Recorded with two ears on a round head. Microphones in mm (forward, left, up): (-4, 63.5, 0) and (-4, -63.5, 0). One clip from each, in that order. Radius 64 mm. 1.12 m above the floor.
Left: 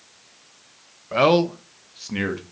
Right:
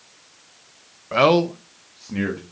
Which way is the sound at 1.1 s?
20° right (ahead or behind).